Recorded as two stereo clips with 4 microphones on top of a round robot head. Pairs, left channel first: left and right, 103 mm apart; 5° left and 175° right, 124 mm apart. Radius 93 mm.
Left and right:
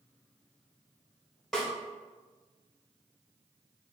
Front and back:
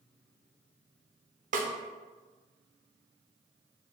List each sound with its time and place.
1.5 s a snare drum: straight behind, 0.6 m